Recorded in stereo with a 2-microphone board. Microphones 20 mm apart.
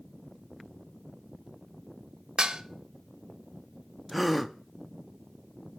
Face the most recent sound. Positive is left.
turn(degrees=0)  # may be behind; listen again after turning